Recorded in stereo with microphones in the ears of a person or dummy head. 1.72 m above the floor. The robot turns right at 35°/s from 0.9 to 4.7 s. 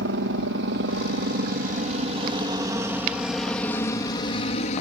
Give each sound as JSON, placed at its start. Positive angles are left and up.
{"t": 0.0, "sound": "a helicopter", "side_deg": -65}